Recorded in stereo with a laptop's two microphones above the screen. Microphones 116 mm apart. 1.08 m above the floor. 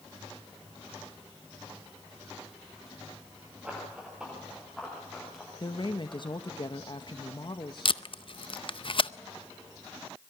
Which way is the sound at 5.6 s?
45° left (ahead or behind).